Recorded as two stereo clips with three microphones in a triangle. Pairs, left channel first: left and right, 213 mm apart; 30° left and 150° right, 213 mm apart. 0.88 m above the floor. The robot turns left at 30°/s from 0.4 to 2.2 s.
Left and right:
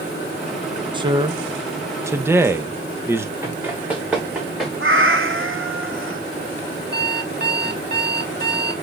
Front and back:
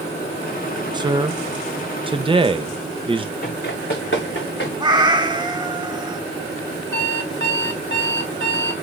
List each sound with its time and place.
0.9 s a man speaking: 115° right, 0.7 m; by 3.3 s 150° right, 0.7 m
3.4 s running footsteps: 15° right, 3 m; by 4.7 s straight ahead, 3.5 m
4.8 s a cat meowing: 80° right, 0.9 m
6.9 s an alarm clock: 130° right, 1.0 m